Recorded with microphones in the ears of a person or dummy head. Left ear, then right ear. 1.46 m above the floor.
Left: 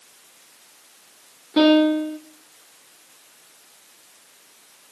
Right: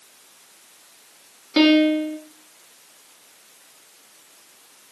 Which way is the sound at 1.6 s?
55° right (ahead or behind).